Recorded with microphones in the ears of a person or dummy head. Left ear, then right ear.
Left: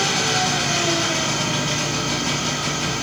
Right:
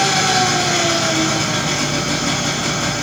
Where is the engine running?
25° left (ahead or behind), 7 m.